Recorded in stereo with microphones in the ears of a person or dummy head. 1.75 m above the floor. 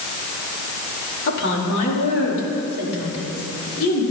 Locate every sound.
1.3 s a woman speaking: 65° left (ahead or behind), 4 m; by 4.0 s 75° left (ahead or behind), 7 m